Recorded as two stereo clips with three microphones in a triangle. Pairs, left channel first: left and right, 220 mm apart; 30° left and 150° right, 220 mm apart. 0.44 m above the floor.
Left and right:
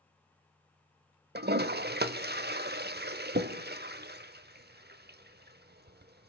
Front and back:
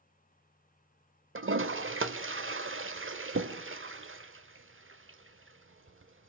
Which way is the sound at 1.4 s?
130° right.